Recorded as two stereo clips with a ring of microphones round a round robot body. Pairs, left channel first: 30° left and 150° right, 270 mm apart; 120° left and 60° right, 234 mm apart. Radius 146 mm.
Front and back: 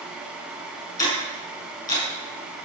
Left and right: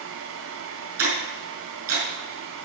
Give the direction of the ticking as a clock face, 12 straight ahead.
2 o'clock.